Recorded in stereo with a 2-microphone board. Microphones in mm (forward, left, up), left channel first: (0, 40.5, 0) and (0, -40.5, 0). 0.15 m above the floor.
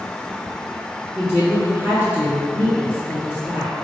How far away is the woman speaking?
About 2.0 m.